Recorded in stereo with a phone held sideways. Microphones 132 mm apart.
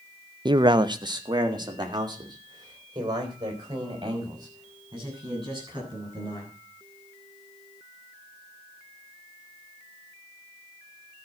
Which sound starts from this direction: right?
A man speaking, at 0.5 s.